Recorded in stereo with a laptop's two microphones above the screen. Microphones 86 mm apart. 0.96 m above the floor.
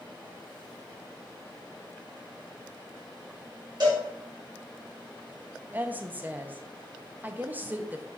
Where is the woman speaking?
20° right (ahead or behind), 0.6 m.